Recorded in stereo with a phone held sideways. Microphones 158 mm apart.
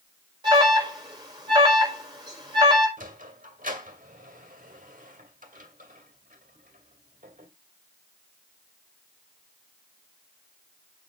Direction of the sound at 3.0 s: 60° right (ahead or behind).